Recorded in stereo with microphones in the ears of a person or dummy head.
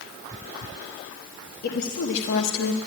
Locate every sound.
1.6 s a woman speaking: 50° left (ahead or behind), 1.4 m; by 2.8 s 85° left, 0.9 m